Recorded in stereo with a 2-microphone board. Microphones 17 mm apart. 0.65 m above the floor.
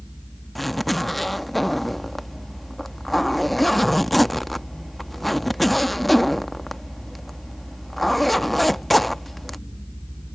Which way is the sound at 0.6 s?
10° left (ahead or behind).